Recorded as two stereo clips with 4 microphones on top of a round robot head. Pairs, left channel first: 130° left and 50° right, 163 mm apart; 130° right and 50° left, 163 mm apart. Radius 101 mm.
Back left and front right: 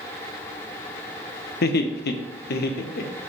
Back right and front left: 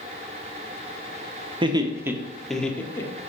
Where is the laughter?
110° left, 0.8 m; by 3.1 s 160° left, 1.1 m.